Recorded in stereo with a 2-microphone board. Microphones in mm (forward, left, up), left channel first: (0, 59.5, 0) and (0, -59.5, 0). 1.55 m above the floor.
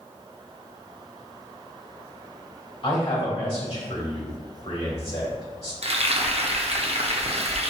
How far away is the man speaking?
About 2.0 m.